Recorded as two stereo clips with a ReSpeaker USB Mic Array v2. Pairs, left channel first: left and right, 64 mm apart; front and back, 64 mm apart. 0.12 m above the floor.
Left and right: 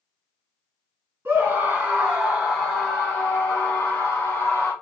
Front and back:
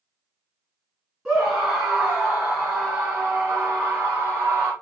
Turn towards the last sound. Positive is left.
turn(degrees=110)